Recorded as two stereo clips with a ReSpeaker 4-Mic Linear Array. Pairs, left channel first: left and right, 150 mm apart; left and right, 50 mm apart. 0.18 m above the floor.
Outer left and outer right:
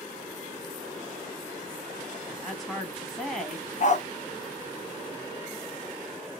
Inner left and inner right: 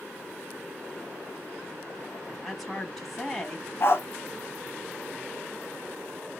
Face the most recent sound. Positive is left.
turn(degrees=50)  # may be behind; listen again after turning